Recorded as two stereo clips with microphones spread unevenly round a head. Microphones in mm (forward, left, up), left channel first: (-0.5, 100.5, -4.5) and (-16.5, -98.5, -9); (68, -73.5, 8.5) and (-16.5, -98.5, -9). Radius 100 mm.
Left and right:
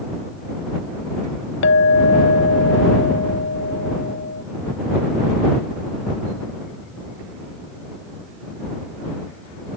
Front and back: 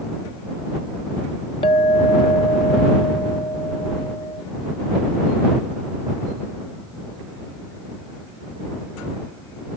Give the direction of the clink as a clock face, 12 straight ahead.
10 o'clock.